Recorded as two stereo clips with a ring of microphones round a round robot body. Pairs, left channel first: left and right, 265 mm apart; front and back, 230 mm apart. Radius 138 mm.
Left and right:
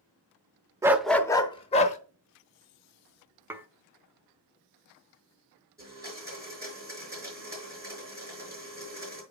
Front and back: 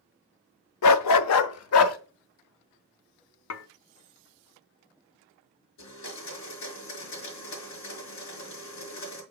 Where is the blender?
10° right, 5 m.